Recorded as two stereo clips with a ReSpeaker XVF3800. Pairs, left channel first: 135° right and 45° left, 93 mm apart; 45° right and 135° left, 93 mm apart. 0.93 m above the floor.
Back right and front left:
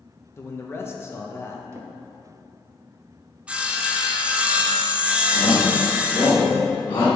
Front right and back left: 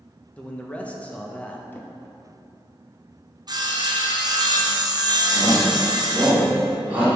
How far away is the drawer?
About 0.5 m.